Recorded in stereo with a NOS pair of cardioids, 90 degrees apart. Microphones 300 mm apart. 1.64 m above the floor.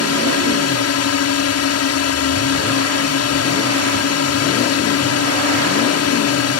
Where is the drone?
60° left.